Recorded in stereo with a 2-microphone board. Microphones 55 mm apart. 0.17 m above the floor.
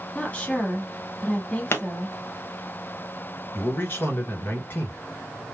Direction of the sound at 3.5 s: 40° left (ahead or behind).